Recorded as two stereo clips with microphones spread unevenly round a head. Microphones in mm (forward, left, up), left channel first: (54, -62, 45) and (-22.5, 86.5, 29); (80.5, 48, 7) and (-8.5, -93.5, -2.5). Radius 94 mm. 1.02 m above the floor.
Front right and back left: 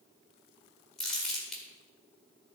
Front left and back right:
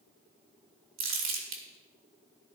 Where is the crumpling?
150° right, 1.8 m.